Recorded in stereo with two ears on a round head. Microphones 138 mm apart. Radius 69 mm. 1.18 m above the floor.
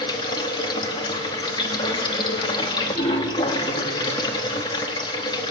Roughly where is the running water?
Left.